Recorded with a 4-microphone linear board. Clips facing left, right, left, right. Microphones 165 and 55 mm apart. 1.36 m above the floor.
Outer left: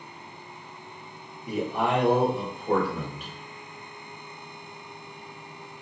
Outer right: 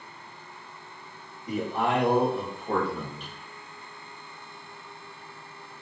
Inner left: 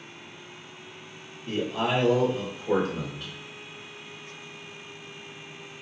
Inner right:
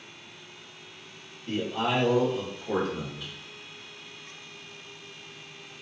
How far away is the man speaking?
About 1.6 m.